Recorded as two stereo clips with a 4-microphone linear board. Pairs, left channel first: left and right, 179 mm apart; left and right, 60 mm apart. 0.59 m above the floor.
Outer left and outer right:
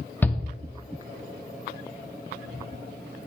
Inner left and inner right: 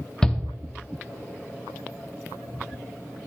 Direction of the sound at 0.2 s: 10° left (ahead or behind).